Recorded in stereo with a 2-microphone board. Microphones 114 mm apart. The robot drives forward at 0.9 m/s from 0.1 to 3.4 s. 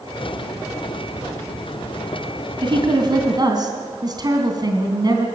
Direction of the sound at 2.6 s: 45° right (ahead or behind).